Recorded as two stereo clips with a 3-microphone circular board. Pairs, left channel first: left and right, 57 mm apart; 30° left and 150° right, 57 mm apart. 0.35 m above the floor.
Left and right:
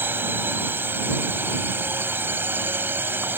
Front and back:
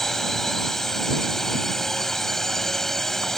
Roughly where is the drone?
Ahead right.